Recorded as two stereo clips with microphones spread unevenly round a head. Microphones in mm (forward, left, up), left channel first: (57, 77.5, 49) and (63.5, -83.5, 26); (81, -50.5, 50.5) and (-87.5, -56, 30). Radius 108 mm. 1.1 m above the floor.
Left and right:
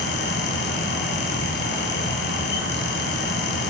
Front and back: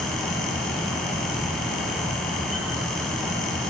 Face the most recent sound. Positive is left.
turn(degrees=90)